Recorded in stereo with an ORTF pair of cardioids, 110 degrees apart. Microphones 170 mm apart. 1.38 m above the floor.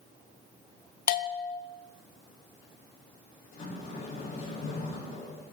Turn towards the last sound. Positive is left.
turn(degrees=60)